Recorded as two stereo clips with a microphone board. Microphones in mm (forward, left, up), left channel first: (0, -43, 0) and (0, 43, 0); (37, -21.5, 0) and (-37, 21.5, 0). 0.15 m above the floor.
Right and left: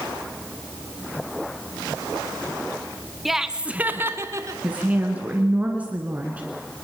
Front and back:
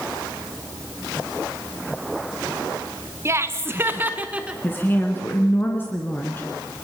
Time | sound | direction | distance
3.2 | laughter | straight behind | 1.4 m
4.6 | a woman speaking | 25° left | 2 m